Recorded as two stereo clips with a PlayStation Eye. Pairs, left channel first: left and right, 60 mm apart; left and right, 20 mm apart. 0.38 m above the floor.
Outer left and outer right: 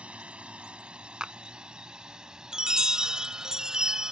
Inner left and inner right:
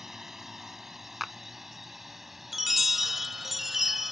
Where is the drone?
20° right (ahead or behind); by 4.1 s 5° right (ahead or behind).